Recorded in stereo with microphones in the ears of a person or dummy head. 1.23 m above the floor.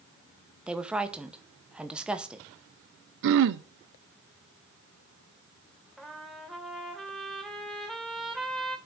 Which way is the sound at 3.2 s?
60° right (ahead or behind).